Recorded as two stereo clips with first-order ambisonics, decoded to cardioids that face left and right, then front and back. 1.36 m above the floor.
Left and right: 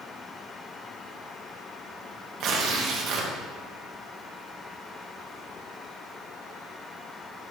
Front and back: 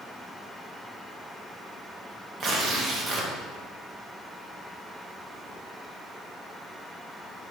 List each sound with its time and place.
2.4 s tearing paper: 125° right, 0.9 m